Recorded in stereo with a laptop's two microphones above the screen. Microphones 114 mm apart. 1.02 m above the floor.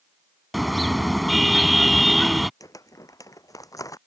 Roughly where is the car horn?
Centre.